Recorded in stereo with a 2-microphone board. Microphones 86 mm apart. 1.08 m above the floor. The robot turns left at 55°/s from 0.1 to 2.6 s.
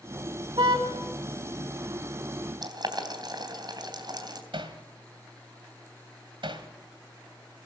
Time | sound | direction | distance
0.6 | a car horn | 65° right (ahead or behind) | 3.5 m
2.6 | boiling | 55° right (ahead or behind) | 3 m
4.5 | hammering | 75° right (ahead or behind) | 2 m